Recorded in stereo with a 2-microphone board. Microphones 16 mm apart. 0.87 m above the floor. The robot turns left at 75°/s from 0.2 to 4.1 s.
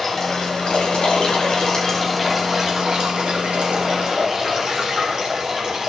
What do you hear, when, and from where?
0.0 s running water: 155° left, 3.5 m; by 5.9 s 135° right, 3.5 m